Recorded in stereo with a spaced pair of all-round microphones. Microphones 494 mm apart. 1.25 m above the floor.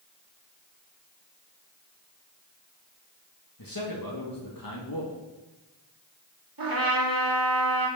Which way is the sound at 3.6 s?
40° left (ahead or behind).